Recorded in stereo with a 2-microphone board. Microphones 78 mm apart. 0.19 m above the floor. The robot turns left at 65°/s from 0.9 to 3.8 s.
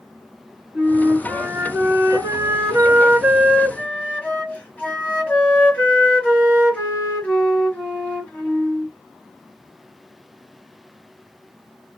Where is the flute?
15° right, 2.5 m; by 8.9 s 155° left, 2.5 m.